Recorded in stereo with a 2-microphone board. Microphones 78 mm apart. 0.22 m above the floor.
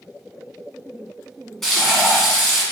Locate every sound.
1.6 s frying: 5° left (ahead or behind), 1.2 m